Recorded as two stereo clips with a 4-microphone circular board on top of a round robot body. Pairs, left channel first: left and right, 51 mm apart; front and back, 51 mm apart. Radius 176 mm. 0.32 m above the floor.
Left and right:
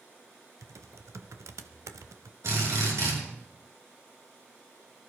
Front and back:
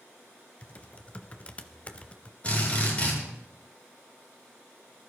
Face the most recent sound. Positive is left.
turn(degrees=-65)